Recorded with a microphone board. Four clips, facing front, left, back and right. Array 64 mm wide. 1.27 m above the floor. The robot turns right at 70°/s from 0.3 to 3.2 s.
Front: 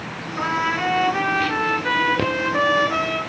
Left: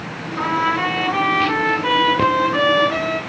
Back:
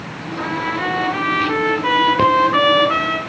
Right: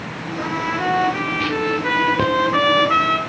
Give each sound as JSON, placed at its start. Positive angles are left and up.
{"t": 0.4, "sound": "a trumpet", "azimuth_deg": 45, "distance_m": 4.0}